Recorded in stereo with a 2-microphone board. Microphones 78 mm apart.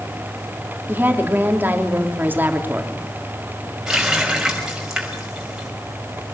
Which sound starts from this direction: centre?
A running tap, at 3.9 s.